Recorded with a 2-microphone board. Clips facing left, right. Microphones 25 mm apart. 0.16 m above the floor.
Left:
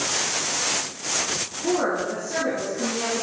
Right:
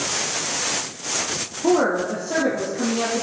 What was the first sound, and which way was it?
A woman speaking, 70° right (ahead or behind).